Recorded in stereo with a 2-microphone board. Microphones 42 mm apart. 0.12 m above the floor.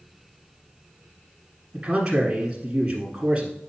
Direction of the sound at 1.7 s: 20° right (ahead or behind).